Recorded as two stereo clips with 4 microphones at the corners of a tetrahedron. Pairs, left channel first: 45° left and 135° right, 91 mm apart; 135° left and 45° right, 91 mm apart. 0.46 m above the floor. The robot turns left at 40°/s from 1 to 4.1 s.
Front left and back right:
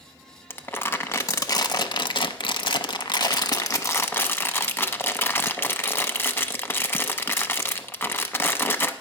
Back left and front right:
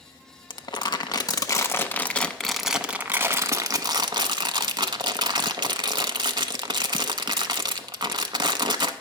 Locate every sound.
0.5 s crumpling: 105° left, 0.6 m; by 8.9 s 15° right, 0.6 m